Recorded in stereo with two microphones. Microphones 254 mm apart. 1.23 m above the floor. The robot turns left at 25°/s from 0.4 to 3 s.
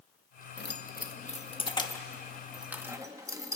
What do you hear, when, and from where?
0.6 s keys jangling: 45° left (ahead or behind), 1.0 m; by 3.6 s 15° right (ahead or behind), 1.0 m